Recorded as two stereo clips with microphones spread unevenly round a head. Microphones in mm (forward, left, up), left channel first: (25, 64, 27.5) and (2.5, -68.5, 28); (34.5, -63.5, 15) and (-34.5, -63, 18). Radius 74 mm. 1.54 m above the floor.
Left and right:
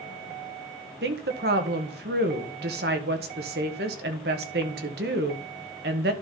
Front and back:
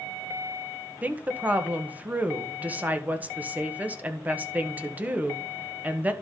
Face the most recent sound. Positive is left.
turn(degrees=-115)